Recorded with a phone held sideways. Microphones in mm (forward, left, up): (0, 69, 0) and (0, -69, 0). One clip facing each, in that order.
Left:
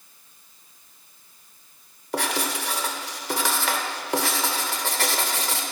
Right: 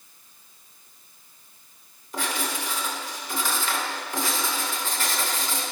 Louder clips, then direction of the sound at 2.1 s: Left 3 dB; 70° left (ahead or behind).